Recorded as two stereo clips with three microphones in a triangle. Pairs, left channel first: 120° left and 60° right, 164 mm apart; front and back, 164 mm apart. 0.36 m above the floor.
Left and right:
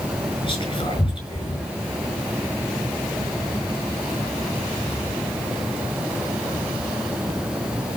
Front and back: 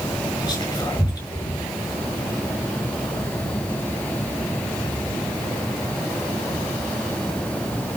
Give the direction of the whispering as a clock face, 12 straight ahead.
10 o'clock.